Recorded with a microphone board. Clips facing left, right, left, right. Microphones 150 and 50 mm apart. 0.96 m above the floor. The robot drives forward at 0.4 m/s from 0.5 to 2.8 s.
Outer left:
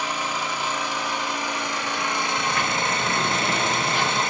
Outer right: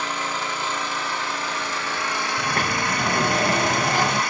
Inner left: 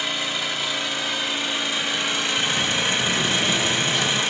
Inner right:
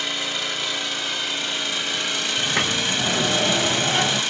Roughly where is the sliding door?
Right.